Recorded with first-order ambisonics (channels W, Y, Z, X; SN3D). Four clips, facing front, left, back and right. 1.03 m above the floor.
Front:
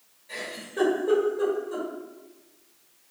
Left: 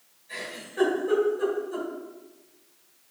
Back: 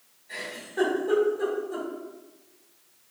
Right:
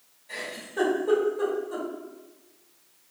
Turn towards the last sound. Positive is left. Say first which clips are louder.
# right 2 dB, even
turn(degrees=-40)